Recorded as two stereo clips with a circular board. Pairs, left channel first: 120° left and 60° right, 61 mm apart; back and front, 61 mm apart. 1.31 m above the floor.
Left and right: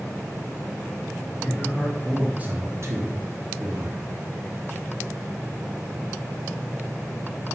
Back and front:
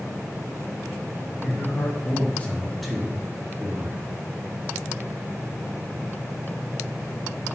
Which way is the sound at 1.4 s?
175° right.